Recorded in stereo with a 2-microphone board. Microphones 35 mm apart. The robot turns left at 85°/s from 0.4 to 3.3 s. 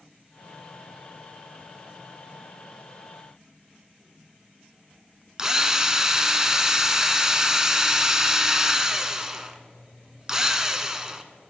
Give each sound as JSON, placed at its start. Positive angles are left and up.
{"t": 5.4, "sound": "a drill", "side_deg": -20, "distance_m": 0.7}